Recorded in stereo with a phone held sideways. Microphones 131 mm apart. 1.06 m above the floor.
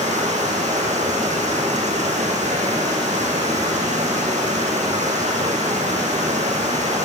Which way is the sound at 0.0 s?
70° right (ahead or behind).